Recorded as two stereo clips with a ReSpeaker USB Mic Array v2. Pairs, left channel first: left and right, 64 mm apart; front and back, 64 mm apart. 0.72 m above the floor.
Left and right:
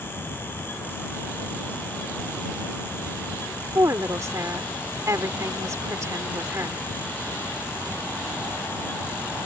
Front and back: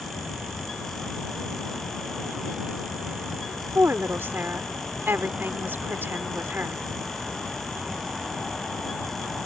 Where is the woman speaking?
125° right.